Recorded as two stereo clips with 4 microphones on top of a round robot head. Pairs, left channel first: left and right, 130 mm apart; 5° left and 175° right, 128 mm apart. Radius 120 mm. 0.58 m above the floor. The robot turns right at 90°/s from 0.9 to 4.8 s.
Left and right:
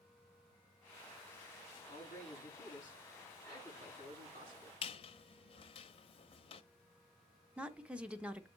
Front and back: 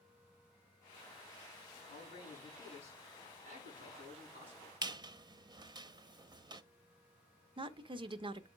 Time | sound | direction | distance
1.9 | a man speaking | 30° left | 7 m
4.8 | a squeak | 130° left | 0.6 m
7.6 | a woman speaking | 165° right | 0.7 m